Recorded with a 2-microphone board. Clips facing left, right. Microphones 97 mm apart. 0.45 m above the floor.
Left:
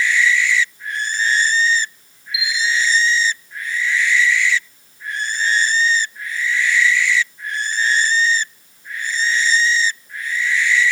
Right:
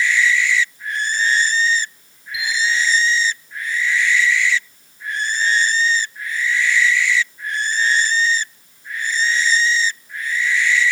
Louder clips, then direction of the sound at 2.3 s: Even; 35° right (ahead or behind).